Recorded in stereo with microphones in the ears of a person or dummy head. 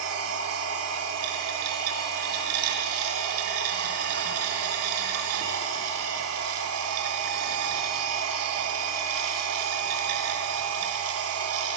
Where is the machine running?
80° right, 2.5 m.